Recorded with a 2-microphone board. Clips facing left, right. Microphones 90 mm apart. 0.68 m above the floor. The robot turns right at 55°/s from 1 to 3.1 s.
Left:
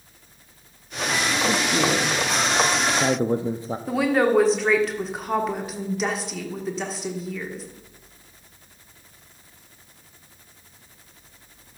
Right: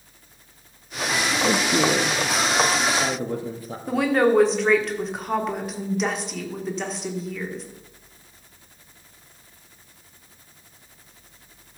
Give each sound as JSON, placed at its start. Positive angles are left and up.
{"t": 1.4, "sound": "a man speaking", "azimuth_deg": -45, "distance_m": 0.6}
{"t": 3.9, "sound": "a woman speaking", "side_deg": 0, "distance_m": 1.4}